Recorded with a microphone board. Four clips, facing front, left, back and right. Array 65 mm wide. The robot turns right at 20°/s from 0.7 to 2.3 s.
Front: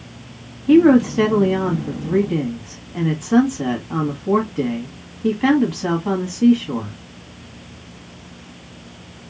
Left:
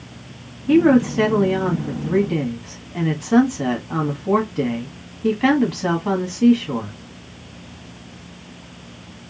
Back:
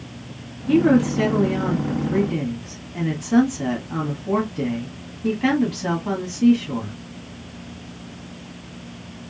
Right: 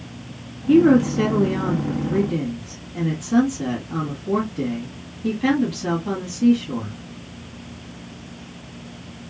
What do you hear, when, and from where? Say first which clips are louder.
0.7 s a woman speaking: even, front 5 dB; 35° left, 1.8 m; by 6.9 s 65° left, 1.8 m